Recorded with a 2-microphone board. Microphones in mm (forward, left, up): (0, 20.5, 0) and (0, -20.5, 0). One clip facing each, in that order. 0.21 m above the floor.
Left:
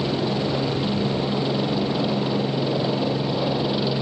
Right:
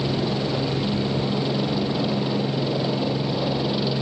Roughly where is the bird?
I don't hear a bird.